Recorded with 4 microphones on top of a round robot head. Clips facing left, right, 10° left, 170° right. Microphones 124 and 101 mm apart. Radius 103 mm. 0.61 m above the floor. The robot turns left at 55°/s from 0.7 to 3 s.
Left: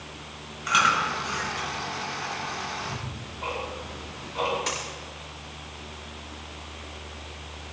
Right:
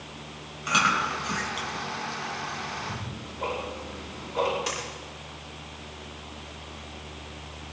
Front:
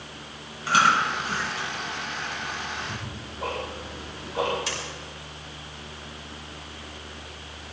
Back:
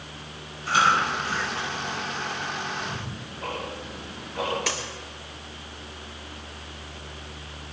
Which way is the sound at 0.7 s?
25° right.